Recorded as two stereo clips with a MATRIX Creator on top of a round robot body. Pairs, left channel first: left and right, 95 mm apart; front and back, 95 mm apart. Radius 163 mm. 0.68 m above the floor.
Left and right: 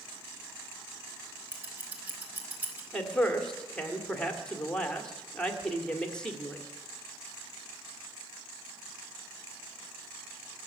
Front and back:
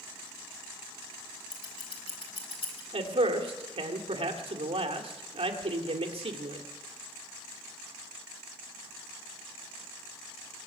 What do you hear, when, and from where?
1.5 s scissors: 20° right, 3.5 m
2.9 s a man speaking: 170° left, 2 m